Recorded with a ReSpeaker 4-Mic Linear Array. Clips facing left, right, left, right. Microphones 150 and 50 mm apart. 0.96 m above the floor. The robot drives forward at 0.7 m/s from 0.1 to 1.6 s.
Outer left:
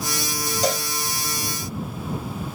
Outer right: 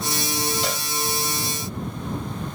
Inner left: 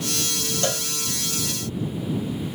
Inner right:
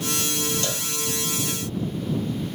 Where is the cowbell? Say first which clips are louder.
Outer left 5 dB, inner left 3 dB; 40° left (ahead or behind), 0.5 m.